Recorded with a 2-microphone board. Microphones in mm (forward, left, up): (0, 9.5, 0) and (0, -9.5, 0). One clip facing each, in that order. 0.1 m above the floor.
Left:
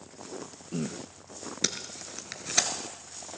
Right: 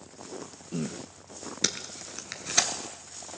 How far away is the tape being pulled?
About 1.2 m.